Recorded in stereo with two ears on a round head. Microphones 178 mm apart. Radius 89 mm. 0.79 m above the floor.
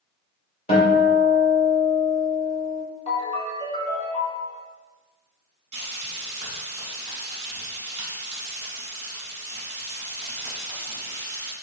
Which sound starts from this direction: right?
Frying, at 5.7 s.